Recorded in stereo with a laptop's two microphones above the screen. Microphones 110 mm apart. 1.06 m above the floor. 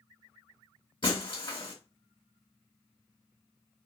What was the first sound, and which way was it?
Breaking glass, 55° left (ahead or behind).